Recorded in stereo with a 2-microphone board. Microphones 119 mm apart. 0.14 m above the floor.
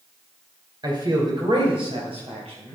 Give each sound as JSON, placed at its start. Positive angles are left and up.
{"t": 0.8, "sound": "a man speaking", "side_deg": -40, "distance_m": 3.0}